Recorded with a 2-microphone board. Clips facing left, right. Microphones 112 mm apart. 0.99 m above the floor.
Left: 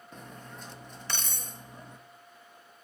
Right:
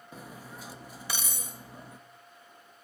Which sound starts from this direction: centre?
Cutlery clinking, at 0.1 s.